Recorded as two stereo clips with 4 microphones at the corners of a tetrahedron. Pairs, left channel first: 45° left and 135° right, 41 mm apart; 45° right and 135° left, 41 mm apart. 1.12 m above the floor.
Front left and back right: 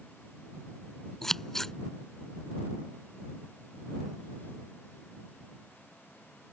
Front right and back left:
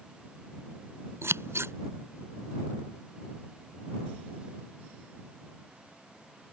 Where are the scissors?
130° left.